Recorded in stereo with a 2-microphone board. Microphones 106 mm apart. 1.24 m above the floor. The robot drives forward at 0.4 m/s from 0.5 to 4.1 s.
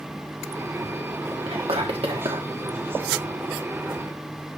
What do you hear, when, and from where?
1.5 s whispering: 65° right (ahead or behind), 1.0 m; by 2.5 s 55° right (ahead or behind), 1.1 m